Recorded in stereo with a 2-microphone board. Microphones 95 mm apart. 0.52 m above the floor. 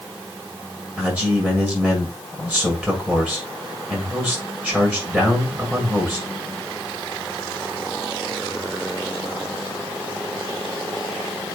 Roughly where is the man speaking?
Centre.